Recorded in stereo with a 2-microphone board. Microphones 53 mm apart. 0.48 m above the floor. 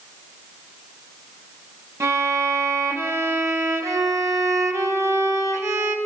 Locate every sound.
2.0 s a violin: 65° right (ahead or behind), 4 m